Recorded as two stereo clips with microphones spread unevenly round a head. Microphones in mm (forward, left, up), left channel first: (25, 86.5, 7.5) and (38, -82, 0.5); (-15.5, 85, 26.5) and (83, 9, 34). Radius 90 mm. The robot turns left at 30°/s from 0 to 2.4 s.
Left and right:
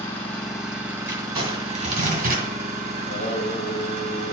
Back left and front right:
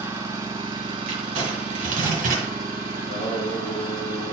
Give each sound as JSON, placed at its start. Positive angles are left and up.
{"t": 0.0, "sound": "an engine running", "azimuth_deg": 25, "distance_m": 1.8}
{"t": 1.1, "sound": "crumpling", "azimuth_deg": -20, "distance_m": 2.5}
{"t": 3.0, "sound": "singing", "azimuth_deg": 145, "distance_m": 2.0}